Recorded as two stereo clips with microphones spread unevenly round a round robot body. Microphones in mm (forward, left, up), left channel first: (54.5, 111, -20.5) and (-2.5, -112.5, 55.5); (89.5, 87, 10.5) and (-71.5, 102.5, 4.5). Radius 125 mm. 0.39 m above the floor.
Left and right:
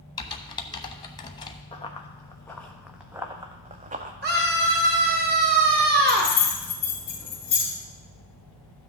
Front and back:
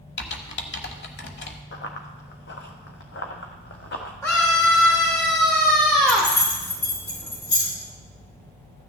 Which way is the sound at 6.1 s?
10° left.